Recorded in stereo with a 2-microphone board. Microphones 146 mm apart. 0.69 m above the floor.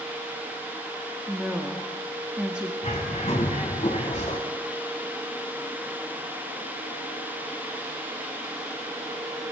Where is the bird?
45° left (ahead or behind), 1.6 m.